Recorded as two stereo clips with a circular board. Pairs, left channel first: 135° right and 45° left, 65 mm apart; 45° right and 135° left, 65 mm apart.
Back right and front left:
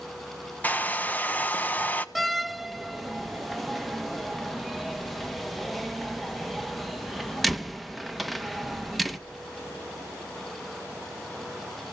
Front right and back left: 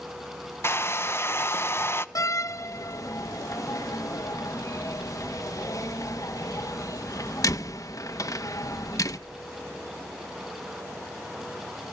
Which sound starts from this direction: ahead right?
A door slam, at 2.1 s.